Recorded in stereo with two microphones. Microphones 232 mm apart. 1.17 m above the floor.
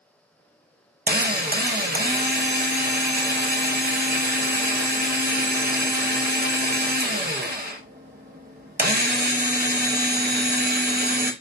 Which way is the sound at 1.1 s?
40° right (ahead or behind).